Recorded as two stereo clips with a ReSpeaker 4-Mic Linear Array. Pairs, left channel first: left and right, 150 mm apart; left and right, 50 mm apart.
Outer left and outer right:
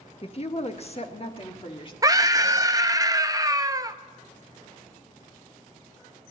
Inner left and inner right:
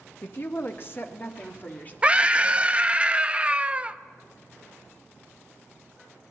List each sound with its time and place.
0.2 s a woman speaking: 40° left (ahead or behind), 0.9 m; by 1.9 s 35° left (ahead or behind), 2 m
2.0 s a scream: 25° right (ahead or behind), 0.6 m